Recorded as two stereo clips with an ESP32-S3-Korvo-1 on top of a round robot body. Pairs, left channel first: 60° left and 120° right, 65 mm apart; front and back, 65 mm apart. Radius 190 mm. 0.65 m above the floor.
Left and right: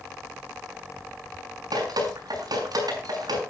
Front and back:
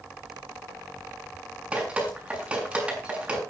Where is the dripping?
105° right, 6.5 m.